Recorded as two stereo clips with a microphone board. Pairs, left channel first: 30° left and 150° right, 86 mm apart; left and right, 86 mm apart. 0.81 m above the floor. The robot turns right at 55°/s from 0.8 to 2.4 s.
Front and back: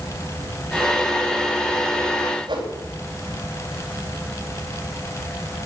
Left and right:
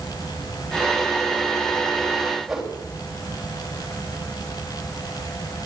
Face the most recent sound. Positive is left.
turn(degrees=180)